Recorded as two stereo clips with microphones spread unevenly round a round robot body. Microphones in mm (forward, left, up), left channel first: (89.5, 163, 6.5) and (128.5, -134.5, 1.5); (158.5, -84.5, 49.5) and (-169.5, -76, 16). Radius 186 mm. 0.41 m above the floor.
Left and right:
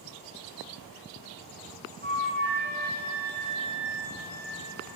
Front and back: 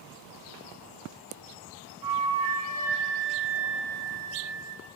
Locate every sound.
2.0 s a flute: 170° left, 4 m